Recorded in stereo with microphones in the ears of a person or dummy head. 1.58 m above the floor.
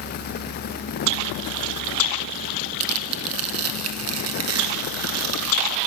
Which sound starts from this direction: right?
Tearing paper, at 2.8 s.